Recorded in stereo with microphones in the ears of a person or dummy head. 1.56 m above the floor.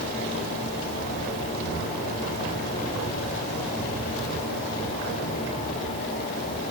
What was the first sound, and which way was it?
Only background noise.